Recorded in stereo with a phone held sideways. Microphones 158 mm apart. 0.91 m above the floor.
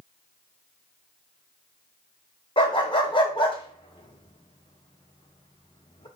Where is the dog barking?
30° left (ahead or behind), 0.9 m.